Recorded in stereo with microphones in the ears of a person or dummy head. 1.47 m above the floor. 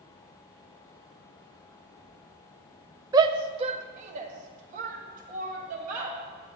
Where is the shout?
20° right (ahead or behind), 0.5 m; by 6.1 s 45° right (ahead or behind), 2.5 m.